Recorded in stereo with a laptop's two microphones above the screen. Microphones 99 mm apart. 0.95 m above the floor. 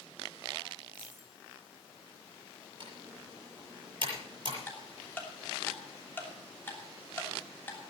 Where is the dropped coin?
55° left (ahead or behind), 7.5 m.